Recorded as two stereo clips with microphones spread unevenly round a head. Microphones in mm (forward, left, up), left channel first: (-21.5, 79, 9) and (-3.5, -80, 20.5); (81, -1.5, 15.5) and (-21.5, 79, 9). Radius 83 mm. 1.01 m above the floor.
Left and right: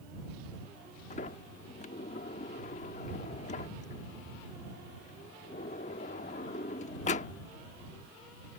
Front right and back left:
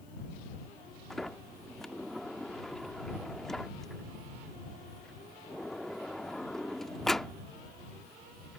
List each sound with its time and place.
1.1 s a sliding door: 50° left